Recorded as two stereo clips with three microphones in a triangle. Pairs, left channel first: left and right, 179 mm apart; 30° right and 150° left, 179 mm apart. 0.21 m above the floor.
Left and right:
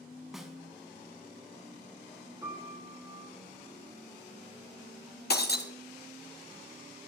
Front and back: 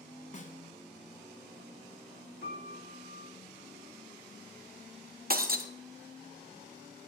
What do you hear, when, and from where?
0.3 s a snare drum: 5° right, 1.2 m
2.4 s a piano: 20° right, 3.5 m
5.3 s breaking glass: 115° left, 1.0 m